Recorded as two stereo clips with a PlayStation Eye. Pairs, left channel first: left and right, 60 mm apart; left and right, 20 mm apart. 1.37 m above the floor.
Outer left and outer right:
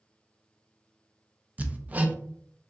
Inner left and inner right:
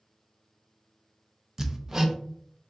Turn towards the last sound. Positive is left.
turn(degrees=-30)  # may be behind; listen again after turning